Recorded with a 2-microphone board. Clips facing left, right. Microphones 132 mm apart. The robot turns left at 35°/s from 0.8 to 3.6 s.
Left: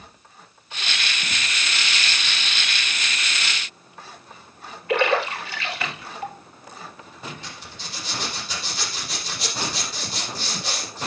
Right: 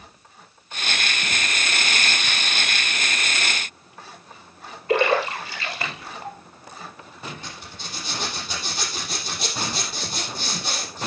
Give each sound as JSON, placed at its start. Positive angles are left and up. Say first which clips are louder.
{"t": 4.9, "sound": "a splash", "louder": "right 1 dB", "side_deg": -35, "distance_m": 3.0}
{"t": 7.4, "sound": "a zipper", "louder": "right 1 dB", "side_deg": -50, "distance_m": 5.5}